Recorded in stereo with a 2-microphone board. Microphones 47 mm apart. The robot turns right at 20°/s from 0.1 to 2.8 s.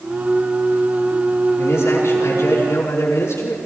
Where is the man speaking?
60° left (ahead or behind), 5 m; by 3.6 s 75° left (ahead or behind), 5 m.